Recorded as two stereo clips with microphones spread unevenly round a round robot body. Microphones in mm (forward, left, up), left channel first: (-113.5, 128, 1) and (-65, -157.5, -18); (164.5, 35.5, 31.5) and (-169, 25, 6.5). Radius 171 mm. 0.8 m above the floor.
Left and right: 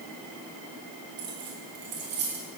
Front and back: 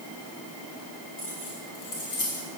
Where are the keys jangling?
55° right, 5.5 m.